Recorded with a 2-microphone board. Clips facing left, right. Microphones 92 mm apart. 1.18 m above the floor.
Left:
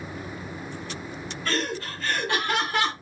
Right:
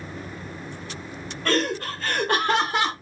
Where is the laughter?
65° right (ahead or behind), 1.2 m; by 2.9 s 10° right (ahead or behind), 0.7 m.